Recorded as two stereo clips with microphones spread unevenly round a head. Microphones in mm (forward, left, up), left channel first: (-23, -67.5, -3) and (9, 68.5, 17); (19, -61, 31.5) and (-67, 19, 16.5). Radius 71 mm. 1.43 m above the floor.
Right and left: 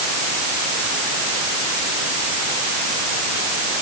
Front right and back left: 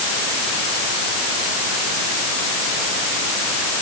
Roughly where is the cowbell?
I don't hear a cowbell.